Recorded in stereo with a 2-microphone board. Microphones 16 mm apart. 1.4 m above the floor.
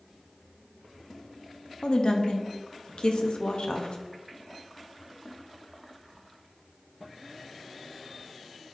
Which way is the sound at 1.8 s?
60° left (ahead or behind).